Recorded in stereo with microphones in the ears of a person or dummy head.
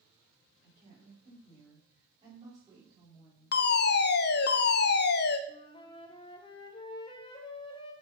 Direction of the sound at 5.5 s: 25° left (ahead or behind).